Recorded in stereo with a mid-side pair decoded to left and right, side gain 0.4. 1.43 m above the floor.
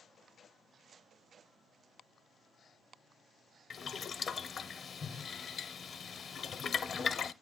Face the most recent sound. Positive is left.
turn(degrees=55)